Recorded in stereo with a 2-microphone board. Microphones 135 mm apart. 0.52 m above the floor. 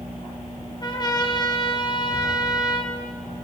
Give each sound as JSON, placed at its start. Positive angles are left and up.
{"t": 0.8, "sound": "a trumpet", "side_deg": 35, "distance_m": 2.0}